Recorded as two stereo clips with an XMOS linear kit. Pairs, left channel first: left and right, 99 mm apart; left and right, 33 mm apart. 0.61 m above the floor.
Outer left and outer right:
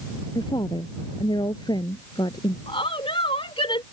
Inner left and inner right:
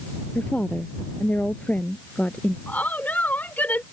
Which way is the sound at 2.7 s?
65° left (ahead or behind).